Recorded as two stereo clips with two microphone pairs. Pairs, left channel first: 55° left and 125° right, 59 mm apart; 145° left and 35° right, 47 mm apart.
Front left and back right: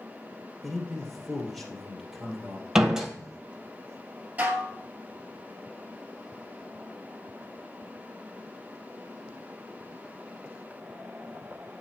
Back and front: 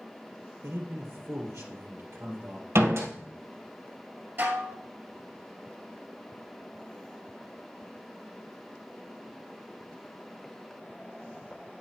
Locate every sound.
0.6 s a man speaking: 35° right, 1.8 m
2.8 s a door slam: 45° right, 1.7 m
4.4 s dishes clattering: 70° right, 1.4 m